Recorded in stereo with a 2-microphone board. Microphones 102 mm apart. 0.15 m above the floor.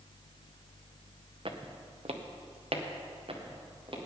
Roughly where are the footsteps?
Right.